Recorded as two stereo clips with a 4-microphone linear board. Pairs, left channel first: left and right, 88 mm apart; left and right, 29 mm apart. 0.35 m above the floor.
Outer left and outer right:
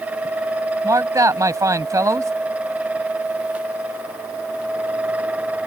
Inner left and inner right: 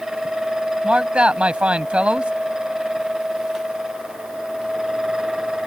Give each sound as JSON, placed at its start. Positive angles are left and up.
{"t": 0.8, "sound": "a man speaking", "side_deg": -40}